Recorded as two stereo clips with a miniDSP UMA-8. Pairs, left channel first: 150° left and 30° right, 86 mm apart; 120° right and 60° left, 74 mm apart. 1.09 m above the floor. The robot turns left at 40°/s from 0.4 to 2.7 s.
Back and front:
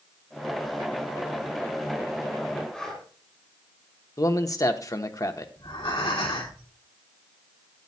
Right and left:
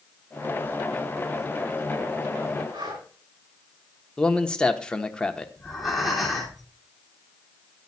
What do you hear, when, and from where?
2.7 s breathing: 65° left, 3.5 m
4.2 s a man speaking: 165° left, 1.0 m
5.6 s breathing: 150° left, 2.5 m